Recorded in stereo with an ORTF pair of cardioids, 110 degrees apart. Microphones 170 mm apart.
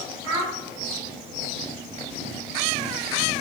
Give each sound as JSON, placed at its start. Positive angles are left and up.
{"t": 0.2, "sound": "a child speaking", "azimuth_deg": -35, "distance_m": 4.0}